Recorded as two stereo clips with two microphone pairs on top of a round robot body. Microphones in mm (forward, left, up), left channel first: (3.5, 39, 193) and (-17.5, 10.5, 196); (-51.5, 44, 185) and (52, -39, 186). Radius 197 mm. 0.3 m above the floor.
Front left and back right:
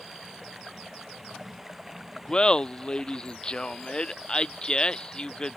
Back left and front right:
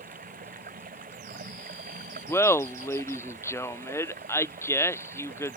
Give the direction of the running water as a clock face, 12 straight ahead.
1 o'clock.